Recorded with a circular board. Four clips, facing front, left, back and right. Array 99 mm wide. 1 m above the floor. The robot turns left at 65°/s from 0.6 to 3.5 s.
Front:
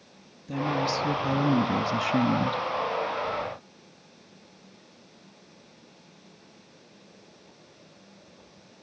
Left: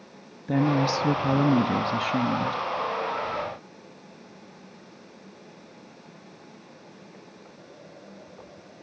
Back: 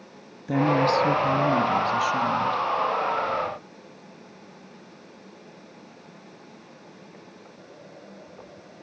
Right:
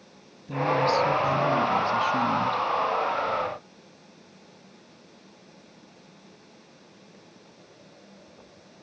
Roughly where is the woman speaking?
Behind left.